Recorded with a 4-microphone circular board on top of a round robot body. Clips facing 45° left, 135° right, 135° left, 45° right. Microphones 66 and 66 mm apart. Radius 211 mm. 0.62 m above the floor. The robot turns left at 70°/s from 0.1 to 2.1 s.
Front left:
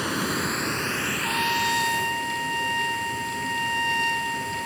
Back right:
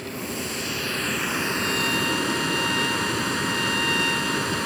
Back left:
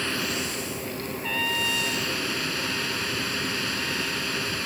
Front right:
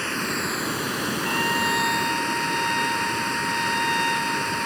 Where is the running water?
30° left; by 4.7 s 110° right.